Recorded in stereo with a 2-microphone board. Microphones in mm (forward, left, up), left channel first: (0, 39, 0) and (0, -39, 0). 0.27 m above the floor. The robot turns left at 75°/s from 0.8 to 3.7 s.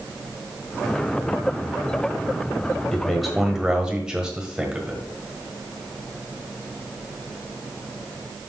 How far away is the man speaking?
About 1.4 m.